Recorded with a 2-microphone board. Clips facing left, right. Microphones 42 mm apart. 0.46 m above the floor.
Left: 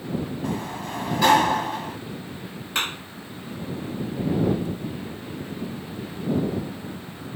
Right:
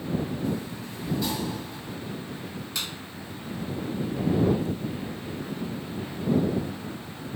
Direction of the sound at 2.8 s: 50° left (ahead or behind).